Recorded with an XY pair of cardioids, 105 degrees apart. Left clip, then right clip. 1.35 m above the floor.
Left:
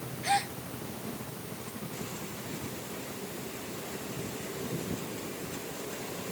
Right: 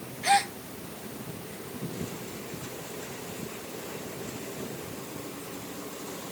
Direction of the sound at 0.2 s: 40° right.